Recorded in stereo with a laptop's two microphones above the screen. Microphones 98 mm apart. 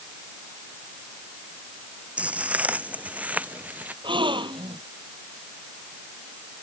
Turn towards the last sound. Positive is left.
turn(degrees=-55)  # may be behind; listen again after turning